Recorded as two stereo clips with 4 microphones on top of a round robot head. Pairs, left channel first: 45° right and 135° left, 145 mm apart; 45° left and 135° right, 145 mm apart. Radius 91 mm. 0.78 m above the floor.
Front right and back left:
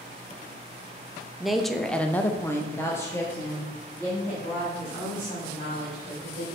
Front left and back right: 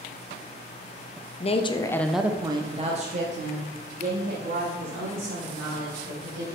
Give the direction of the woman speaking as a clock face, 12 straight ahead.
10 o'clock.